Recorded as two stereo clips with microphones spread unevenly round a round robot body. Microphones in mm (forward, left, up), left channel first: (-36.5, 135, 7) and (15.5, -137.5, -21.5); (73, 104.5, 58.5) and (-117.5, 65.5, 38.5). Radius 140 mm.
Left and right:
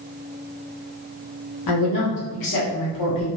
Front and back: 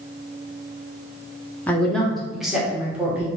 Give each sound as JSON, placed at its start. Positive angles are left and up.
{"t": 1.7, "sound": "a woman speaking", "azimuth_deg": 95, "distance_m": 1.9}